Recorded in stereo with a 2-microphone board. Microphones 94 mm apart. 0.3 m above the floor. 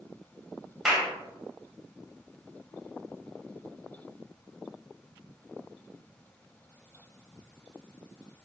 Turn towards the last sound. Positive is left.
turn(degrees=-5)  # may be behind; listen again after turning